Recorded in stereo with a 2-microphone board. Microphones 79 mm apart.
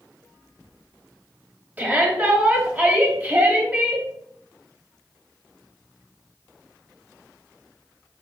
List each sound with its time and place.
1.8 s a shout: 20° right (ahead or behind), 1.5 m